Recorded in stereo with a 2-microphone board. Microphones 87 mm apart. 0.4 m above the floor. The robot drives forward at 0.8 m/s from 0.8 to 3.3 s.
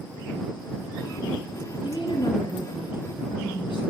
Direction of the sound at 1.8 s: 65° left (ahead or behind).